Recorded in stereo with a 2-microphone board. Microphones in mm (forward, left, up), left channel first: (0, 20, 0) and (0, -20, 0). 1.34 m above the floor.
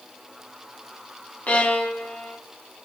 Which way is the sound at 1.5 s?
45° left (ahead or behind).